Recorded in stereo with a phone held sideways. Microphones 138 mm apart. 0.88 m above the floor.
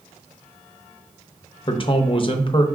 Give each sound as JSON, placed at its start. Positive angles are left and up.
{"t": 1.7, "sound": "a man speaking", "side_deg": 40, "distance_m": 0.6}